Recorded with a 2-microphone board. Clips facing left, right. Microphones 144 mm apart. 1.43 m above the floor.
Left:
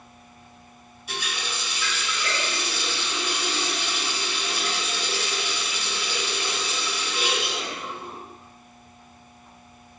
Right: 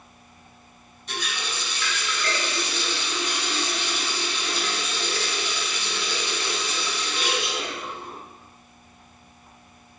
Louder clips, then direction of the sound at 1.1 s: Even; 10° left (ahead or behind).